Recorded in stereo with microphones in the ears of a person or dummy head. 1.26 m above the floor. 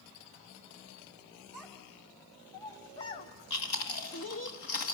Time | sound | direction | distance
1.5 | a child speaking | centre (ahead or behind) | 2.5 m
3.5 | chewing | 55° left (ahead or behind) | 1.7 m